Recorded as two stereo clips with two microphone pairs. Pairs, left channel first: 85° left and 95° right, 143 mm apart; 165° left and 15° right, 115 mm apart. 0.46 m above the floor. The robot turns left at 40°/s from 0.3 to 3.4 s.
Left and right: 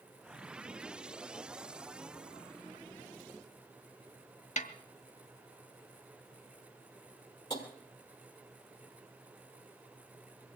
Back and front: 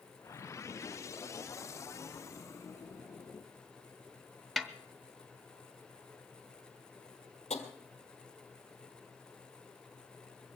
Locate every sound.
4.6 s a snare drum: 75° left, 0.9 m
7.5 s tapping: 145° left, 2 m